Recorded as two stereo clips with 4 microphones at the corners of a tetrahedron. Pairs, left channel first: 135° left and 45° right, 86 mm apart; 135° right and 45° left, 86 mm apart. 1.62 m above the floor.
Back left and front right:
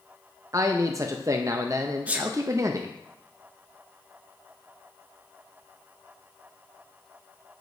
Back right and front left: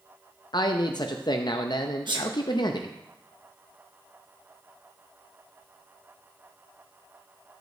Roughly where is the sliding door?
I don't hear a sliding door.